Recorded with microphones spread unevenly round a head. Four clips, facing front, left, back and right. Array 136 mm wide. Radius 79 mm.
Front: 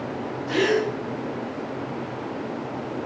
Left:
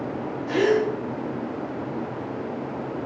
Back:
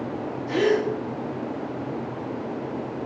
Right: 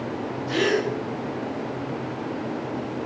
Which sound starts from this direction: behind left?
A gasp, at 0.5 s.